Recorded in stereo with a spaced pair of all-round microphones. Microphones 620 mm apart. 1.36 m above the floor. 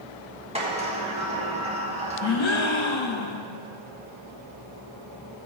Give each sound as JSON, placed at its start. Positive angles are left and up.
{"t": 0.6, "sound": "a sliding door", "side_deg": -10, "distance_m": 1.7}
{"t": 2.2, "sound": "a gasp", "side_deg": 50, "distance_m": 0.6}